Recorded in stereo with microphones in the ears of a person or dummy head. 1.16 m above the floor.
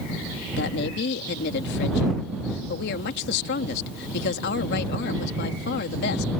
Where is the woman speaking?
65° left (ahead or behind).